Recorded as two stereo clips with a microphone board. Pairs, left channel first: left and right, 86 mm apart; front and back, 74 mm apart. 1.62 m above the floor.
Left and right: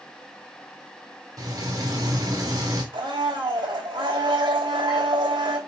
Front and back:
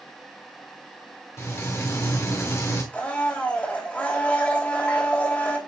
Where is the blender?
70° right, 3 m.